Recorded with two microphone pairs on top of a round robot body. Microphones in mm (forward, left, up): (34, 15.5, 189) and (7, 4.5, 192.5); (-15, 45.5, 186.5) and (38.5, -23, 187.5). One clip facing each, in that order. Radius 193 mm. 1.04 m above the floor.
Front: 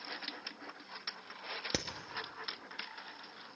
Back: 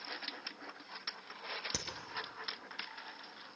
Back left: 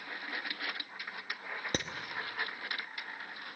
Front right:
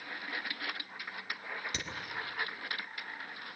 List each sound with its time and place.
1.7 s hammering: 85° left, 1.1 m